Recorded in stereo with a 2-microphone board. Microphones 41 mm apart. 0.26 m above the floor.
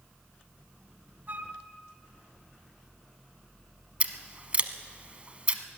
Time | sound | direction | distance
1.3 | a flute | 50° right (ahead or behind) | 0.9 m
4.0 | scissors | 35° right (ahead or behind) | 0.8 m